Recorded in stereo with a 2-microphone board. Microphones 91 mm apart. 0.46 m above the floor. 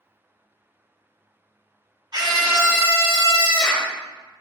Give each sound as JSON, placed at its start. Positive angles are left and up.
{"t": 2.1, "sound": "a scream", "side_deg": -50, "distance_m": 1.6}